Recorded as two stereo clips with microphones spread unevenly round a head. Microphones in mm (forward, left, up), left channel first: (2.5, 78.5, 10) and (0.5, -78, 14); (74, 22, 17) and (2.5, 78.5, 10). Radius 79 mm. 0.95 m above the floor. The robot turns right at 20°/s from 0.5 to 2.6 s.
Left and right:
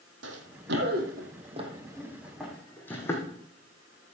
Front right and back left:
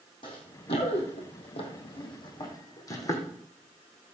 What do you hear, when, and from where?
0.2 s running footsteps: 90° right, 2 m; by 3.3 s 15° left, 3 m